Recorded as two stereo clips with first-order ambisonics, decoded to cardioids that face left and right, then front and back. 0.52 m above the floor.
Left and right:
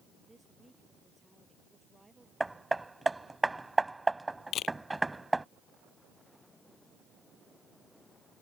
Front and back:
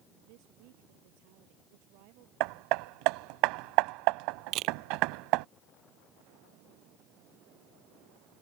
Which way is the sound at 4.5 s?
140° left.